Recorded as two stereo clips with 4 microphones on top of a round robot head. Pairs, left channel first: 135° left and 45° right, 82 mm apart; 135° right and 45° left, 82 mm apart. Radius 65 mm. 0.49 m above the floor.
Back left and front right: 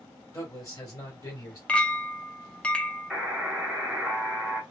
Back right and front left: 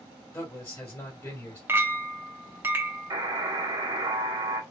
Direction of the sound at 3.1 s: 40° left.